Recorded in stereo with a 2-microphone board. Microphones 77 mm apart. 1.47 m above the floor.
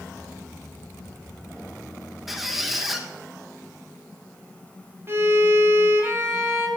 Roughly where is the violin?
Right.